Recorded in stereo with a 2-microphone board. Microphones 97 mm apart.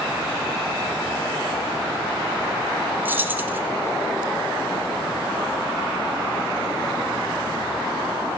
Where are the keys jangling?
20° right (ahead or behind), 1.0 m.